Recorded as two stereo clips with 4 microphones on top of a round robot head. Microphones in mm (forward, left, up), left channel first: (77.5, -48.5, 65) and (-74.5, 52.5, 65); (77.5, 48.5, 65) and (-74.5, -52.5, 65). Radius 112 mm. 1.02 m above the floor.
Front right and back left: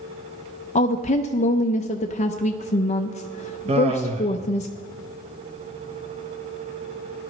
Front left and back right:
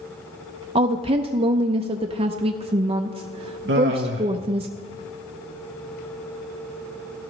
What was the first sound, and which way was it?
A woman speaking, 90° right.